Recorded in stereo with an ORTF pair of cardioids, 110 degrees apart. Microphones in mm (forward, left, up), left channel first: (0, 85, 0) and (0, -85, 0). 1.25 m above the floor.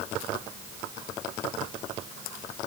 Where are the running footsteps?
I don't hear running footsteps.